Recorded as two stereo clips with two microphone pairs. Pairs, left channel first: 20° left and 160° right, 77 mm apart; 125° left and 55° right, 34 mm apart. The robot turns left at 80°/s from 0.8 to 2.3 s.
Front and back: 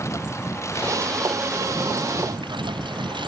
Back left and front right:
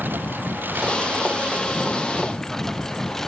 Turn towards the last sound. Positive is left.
turn(degrees=-150)